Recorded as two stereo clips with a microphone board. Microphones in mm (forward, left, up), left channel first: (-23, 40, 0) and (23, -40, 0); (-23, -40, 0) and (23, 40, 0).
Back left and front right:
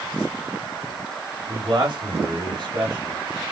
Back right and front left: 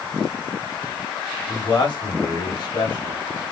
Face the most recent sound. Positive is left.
turn(degrees=-95)